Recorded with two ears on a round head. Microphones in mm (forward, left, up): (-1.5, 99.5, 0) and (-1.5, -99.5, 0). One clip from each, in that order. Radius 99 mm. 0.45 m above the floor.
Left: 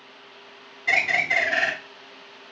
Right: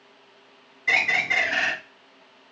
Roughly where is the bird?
Centre.